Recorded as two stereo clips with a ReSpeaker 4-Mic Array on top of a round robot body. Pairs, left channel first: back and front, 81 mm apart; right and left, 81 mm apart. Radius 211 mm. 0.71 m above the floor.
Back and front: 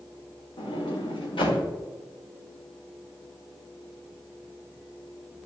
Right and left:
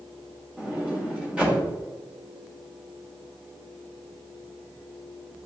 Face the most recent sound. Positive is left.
turn(degrees=170)